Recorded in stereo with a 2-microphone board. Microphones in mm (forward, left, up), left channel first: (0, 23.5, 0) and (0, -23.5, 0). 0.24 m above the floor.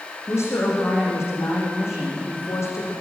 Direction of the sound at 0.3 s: 60° left (ahead or behind).